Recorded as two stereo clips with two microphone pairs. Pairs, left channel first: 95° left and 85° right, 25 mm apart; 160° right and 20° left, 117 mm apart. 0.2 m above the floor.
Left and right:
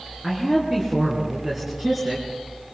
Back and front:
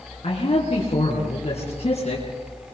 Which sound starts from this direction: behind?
A man speaking, at 0.2 s.